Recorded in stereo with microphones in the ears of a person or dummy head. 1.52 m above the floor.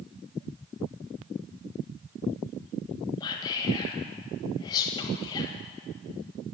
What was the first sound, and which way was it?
Whispering, 20° left (ahead or behind).